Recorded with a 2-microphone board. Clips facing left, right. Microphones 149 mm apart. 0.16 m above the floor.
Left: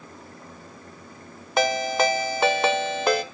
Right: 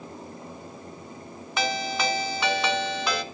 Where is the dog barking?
No dog barking in this recording.